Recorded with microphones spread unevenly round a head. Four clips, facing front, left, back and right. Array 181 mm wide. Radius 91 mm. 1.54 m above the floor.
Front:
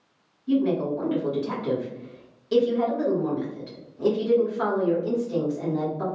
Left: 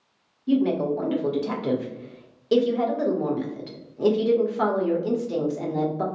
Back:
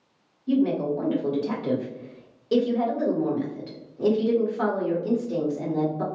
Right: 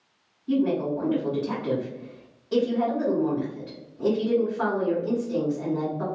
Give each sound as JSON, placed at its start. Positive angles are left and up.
{"t": 0.5, "sound": "a woman speaking", "azimuth_deg": 105, "distance_m": 1.1}